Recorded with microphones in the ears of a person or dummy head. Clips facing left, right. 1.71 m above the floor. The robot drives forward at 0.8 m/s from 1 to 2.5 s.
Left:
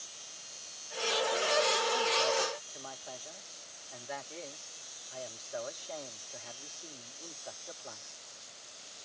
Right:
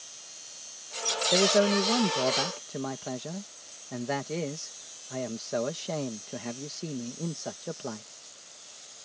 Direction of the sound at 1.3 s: 85° right.